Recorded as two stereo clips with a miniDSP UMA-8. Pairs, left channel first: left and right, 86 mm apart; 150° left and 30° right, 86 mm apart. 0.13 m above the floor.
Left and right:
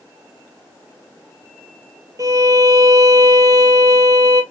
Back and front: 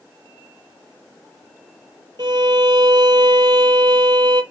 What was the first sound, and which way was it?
A violin, 50° right.